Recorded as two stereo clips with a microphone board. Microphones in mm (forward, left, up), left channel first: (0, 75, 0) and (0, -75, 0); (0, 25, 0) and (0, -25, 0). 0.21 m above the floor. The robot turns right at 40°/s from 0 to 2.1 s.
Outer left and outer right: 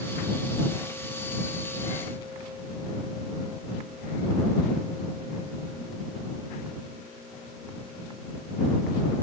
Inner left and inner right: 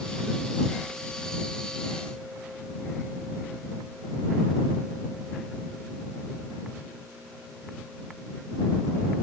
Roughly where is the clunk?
I don't hear a clunk.